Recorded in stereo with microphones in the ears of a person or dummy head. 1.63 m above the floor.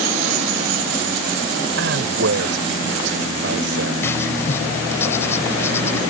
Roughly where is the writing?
Centre.